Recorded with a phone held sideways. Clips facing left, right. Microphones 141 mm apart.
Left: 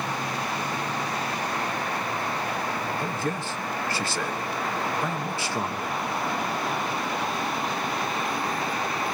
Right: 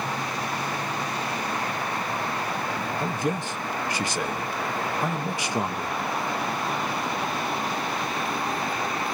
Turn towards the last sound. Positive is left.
turn(degrees=-20)  # may be behind; listen again after turning